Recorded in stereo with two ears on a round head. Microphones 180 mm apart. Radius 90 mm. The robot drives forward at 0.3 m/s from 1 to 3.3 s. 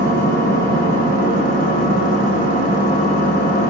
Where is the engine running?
50° left (ahead or behind), 1.4 m; by 3.7 s 35° left (ahead or behind), 1.9 m.